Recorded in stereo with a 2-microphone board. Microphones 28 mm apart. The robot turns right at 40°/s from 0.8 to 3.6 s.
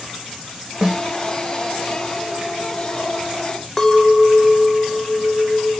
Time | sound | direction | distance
0.8 | a snare drum | 15° right (ahead or behind) | 1.4 m
3.8 | a clink | 15° left (ahead or behind) | 0.6 m